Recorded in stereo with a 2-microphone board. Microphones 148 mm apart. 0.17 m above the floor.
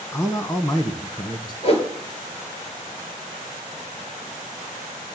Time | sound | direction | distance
0.1 | a man speaking | 20° left (ahead or behind) | 1.2 m
1.6 | a whoosh | 45° left (ahead or behind) | 3.5 m